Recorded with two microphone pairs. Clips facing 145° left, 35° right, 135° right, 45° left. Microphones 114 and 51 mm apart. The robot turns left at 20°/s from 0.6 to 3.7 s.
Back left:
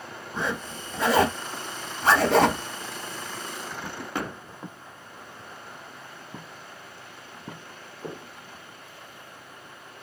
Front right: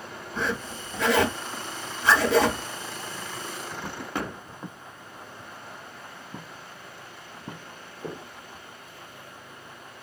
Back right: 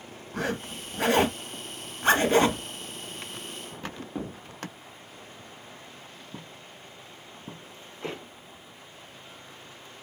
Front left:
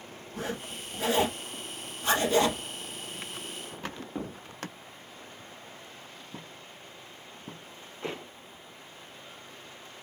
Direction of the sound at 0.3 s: 150° right.